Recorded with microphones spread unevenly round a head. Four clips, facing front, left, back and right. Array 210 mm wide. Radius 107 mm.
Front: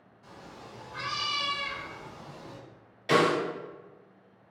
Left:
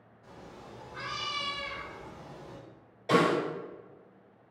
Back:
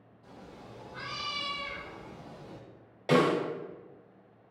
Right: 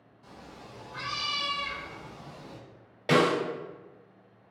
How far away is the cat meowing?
About 1.5 m.